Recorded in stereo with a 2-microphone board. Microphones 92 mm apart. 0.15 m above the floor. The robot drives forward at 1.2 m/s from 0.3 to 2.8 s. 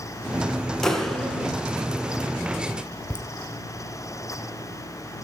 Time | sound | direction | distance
0.8 | a clap | 5° left (ahead or behind) | 1.5 m
3.1 | laughter | 15° left (ahead or behind) | 1.0 m